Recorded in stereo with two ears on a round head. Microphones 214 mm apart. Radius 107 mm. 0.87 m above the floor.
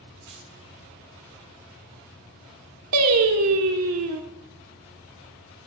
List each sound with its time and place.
0.3 s keys jangling: 60° right (ahead or behind), 5.5 m
2.9 s singing: 75° right (ahead or behind), 1.2 m